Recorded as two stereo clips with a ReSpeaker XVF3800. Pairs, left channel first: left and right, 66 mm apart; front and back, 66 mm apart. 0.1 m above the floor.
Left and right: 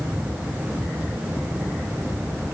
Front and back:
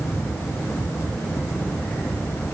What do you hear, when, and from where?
Only background noise.